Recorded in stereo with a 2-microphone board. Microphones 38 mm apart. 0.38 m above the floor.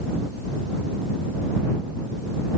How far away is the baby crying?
I don't hear a baby crying.